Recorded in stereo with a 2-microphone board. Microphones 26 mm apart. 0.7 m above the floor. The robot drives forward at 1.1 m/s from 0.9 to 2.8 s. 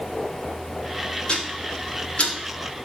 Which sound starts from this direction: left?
Ticking, at 1.3 s.